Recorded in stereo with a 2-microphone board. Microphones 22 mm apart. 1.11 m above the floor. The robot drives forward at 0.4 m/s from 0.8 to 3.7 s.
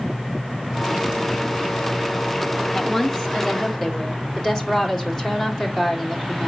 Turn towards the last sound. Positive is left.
turn(degrees=15)  # may be behind; listen again after turning